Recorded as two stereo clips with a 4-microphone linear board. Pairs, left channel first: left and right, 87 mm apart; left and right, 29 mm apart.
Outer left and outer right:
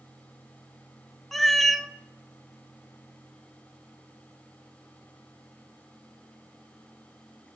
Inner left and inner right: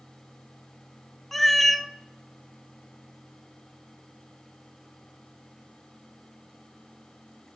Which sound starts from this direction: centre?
A cat meowing, at 1.3 s.